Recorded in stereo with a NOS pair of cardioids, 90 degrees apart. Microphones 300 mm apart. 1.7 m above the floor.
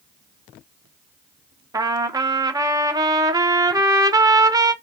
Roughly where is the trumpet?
Ahead.